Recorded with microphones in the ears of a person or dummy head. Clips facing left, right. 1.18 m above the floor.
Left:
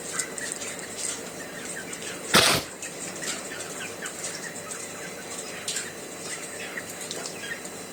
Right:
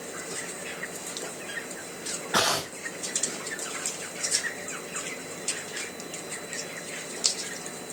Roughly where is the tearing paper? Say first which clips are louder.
Left 5 dB; centre.